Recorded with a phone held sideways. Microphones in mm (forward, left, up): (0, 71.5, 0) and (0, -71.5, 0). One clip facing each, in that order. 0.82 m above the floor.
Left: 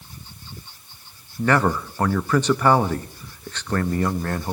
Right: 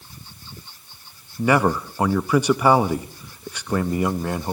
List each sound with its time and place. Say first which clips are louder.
1.4 s a man speaking: right 1 dB; 10° right (ahead or behind), 0.7 m